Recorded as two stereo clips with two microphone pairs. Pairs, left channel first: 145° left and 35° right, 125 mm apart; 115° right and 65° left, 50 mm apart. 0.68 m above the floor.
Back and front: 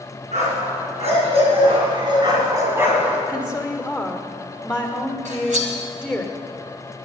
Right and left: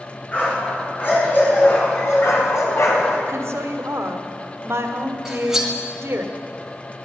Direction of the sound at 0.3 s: 55° right.